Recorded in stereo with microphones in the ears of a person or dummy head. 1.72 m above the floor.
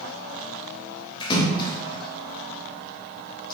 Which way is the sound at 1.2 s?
25° left (ahead or behind).